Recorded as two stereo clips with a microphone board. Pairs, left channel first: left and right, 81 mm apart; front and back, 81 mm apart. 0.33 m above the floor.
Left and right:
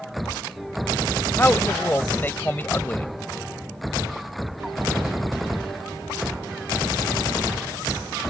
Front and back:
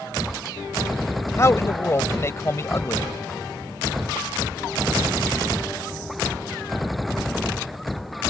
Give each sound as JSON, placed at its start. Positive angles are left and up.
{"t": 1.4, "sound": "a man speaking", "azimuth_deg": 35}